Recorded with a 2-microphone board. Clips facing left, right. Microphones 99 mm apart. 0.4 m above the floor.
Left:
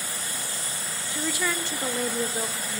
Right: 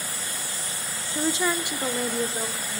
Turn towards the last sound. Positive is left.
turn(degrees=10)  # may be behind; listen again after turning